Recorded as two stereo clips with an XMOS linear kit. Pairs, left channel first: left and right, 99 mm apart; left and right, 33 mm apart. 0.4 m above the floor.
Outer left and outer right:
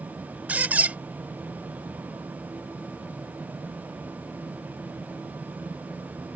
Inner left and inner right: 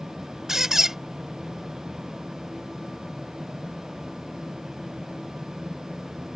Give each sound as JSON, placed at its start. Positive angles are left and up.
{"t": 0.5, "sound": "a squeak", "side_deg": -15}